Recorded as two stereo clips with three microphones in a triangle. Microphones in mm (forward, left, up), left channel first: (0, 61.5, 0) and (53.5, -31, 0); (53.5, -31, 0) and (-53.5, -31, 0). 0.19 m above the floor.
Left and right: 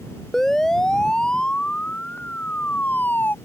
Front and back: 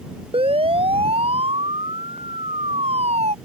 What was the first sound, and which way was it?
A siren, 155° right.